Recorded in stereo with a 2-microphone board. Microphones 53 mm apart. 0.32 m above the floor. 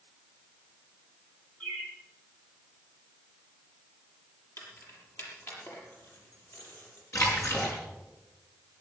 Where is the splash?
75° left (ahead or behind), 5 m.